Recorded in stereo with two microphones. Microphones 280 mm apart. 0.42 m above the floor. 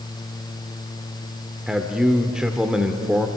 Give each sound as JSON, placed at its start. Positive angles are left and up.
{"t": 1.7, "sound": "a man speaking", "side_deg": 0, "distance_m": 1.2}